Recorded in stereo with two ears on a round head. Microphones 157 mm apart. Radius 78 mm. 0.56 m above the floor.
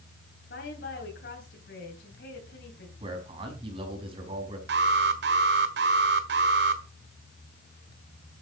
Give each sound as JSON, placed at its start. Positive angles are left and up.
{"t": 0.5, "sound": "a woman speaking", "side_deg": 65, "distance_m": 3.5}
{"t": 3.0, "sound": "a man speaking", "side_deg": -35, "distance_m": 4.5}
{"t": 4.7, "sound": "an alarm", "side_deg": -70, "distance_m": 1.7}